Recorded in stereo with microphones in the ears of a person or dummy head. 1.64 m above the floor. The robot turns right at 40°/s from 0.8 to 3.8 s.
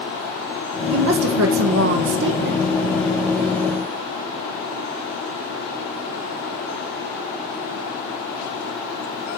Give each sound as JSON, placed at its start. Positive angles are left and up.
{"t": 0.9, "sound": "a woman speaking", "azimuth_deg": -120, "distance_m": 1.3}